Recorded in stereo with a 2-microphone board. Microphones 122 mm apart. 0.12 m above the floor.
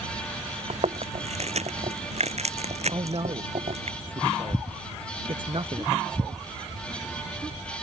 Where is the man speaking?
45° right (ahead or behind).